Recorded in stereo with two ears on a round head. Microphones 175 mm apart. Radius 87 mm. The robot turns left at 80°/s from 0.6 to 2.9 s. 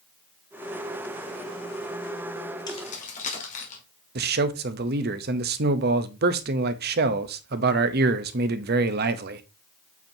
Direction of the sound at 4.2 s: 55° right (ahead or behind).